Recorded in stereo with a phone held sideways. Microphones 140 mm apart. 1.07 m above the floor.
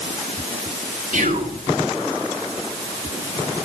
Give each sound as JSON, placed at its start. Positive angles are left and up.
{"t": 1.1, "sound": "whispering", "side_deg": -65, "distance_m": 2.0}